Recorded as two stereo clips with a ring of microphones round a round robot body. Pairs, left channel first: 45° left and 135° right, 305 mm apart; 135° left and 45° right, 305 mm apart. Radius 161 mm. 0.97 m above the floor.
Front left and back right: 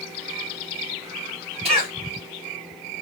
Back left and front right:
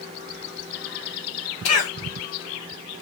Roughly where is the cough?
Behind left.